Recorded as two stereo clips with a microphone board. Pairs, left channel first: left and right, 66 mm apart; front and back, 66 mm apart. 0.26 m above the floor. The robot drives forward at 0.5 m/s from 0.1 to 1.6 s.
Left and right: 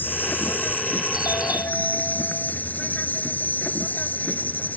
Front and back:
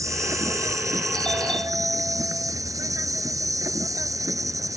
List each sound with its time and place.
0.0 s an insect: 150° left
1.1 s a doorbell: 75° left